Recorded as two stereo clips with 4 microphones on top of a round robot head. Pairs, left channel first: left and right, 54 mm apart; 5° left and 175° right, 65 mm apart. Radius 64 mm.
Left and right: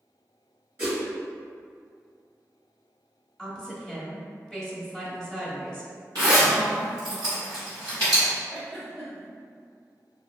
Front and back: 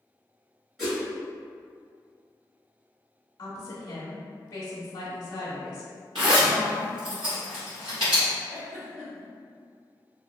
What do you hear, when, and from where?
0.8 s a whoosh: 90° right, 1.1 m
3.4 s a woman speaking: 10° left, 0.7 m
6.2 s a zipper: 140° right, 0.9 m
8.5 s a giggle: straight behind, 1.2 m